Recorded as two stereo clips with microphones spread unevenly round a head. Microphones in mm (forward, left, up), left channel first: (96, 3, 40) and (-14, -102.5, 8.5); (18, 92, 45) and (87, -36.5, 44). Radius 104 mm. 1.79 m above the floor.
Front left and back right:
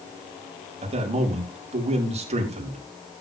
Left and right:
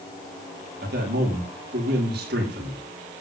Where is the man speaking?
90° right, 6 m.